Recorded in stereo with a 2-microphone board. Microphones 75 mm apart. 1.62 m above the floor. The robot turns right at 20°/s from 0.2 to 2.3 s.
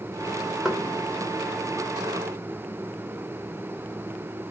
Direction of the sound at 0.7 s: 5° right (ahead or behind).